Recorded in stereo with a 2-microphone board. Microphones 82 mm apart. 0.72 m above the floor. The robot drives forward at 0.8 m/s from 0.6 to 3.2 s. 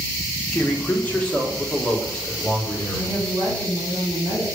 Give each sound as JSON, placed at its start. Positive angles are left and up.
{"t": 0.5, "sound": "a man speaking", "side_deg": 20, "distance_m": 1.4}
{"t": 3.0, "sound": "a woman speaking", "side_deg": -45, "distance_m": 3.5}